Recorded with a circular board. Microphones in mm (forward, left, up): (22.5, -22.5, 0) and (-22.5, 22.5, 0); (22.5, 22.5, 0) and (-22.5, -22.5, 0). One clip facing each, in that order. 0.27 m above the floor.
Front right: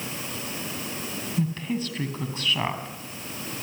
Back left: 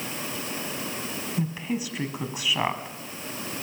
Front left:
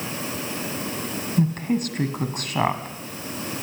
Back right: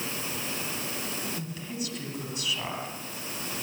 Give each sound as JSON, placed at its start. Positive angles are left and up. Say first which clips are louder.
{"t": 1.4, "sound": "a woman speaking", "louder": "front right 2 dB, front left 13 dB", "azimuth_deg": 60, "distance_m": 2.5}